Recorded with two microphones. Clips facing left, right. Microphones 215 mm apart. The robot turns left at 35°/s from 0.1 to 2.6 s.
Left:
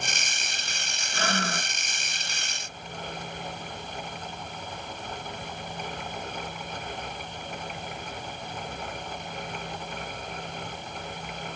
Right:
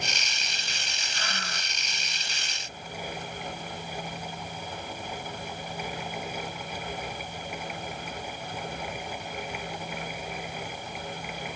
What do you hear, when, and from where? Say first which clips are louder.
1.1 s breathing: left 11 dB; 80° left; by 1.8 s 60° left (ahead or behind)